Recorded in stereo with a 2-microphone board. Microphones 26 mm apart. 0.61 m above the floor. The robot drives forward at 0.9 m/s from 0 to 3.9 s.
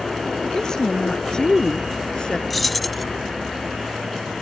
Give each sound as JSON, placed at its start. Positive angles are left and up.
{"t": 0.4, "sound": "a woman speaking", "side_deg": 25}
{"t": 2.5, "sound": "keys jangling", "side_deg": 5}